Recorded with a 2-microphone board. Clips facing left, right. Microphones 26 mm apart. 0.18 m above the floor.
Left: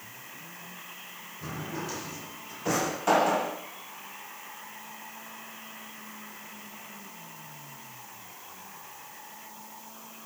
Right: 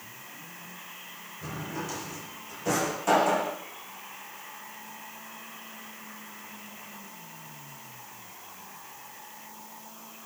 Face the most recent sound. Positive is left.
turn(degrees=15)  # may be behind; listen again after turning